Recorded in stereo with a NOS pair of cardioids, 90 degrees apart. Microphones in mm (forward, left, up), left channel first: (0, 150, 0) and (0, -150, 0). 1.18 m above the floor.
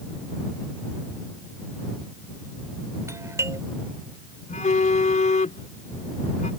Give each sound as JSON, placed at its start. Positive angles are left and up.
{"t": 3.1, "sound": "a doorbell", "azimuth_deg": -10}
{"t": 4.5, "sound": "a phone buzzing", "azimuth_deg": 25}